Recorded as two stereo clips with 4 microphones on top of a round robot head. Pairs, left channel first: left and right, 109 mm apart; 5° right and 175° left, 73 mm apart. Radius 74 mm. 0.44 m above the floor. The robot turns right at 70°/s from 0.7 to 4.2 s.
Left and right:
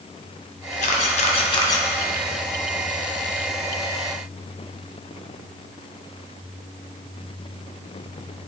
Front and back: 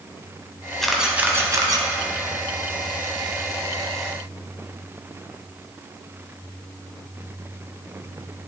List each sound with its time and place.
0.8 s a camera shutter: 80° left, 1.2 m; by 1.9 s 155° left, 1.2 m